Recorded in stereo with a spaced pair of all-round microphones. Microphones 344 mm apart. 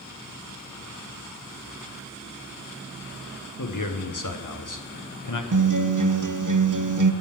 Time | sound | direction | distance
3.6 | a man speaking | 65° left (ahead or behind) | 1.1 m
5.5 | a guitar | 60° right (ahead or behind) | 0.6 m